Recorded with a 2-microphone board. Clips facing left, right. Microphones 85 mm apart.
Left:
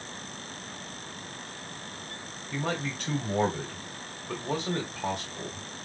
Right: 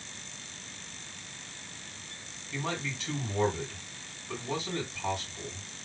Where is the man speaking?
65° left (ahead or behind), 2.5 m.